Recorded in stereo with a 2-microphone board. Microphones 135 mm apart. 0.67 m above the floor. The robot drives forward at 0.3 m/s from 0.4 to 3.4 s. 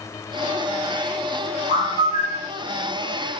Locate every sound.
1.7 s a bird: 45° left (ahead or behind), 2 m; by 2.5 s 50° left (ahead or behind), 2 m